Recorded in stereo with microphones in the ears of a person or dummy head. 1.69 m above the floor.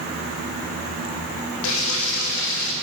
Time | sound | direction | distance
1.6 | frying | 70° left (ahead or behind) | 1.9 m